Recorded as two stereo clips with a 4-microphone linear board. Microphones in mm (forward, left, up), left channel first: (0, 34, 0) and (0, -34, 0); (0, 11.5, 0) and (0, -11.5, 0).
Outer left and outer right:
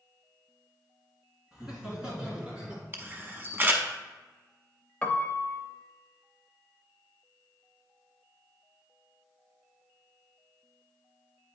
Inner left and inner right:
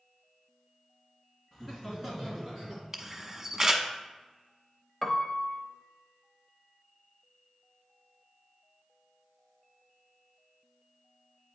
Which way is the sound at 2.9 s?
30° right (ahead or behind).